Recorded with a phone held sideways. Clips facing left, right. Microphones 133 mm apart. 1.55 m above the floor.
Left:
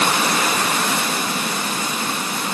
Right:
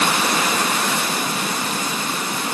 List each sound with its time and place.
Only background noise.